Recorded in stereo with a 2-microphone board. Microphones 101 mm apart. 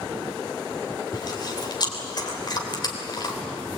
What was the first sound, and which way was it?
Chewing, 45° left (ahead or behind).